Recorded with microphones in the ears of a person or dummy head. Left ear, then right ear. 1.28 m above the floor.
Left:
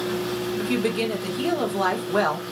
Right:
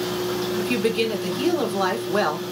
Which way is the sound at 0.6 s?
5° right (ahead or behind).